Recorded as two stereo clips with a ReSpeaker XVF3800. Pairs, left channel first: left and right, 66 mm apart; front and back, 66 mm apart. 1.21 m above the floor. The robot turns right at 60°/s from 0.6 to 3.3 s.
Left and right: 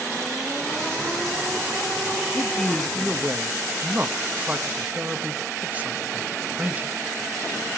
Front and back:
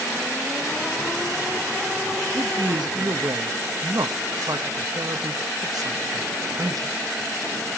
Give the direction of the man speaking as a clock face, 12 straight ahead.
7 o'clock.